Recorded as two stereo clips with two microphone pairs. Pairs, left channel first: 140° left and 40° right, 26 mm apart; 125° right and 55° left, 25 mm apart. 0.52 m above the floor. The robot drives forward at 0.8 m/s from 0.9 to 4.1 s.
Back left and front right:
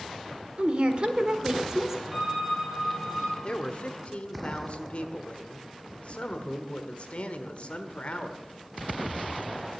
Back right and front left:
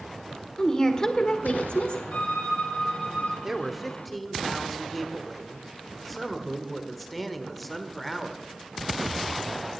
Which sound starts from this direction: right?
A woman speaking, at 0.6 s.